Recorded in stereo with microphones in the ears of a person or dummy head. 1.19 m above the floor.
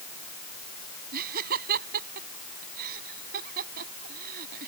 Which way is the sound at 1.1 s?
50° right (ahead or behind).